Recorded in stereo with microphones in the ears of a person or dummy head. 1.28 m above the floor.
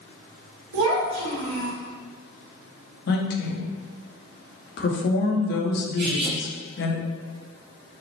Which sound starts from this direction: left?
A woman speaking, at 3.1 s.